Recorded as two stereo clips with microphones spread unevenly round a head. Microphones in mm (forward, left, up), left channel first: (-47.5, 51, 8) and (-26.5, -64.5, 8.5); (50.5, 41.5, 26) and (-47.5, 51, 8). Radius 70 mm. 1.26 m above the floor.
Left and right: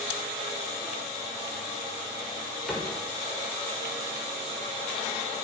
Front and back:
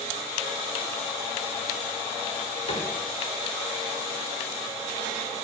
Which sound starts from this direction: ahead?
A cupboard door, at 2.7 s.